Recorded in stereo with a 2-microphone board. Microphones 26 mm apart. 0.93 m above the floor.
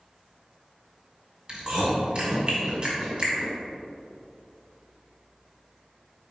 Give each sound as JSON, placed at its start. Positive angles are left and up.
{"t": 1.5, "sound": "chewing", "side_deg": -35, "distance_m": 2.0}